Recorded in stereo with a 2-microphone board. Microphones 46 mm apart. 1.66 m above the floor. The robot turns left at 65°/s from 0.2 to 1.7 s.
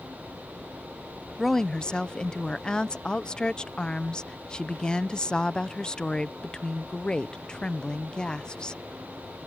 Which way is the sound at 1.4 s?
Centre (ahead or behind).